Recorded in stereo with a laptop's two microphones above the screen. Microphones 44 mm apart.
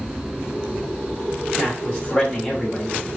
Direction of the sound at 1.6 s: 20° left (ahead or behind).